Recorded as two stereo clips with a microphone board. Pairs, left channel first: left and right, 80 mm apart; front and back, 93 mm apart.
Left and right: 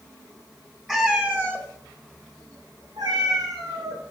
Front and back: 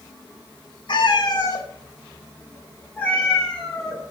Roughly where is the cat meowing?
Ahead.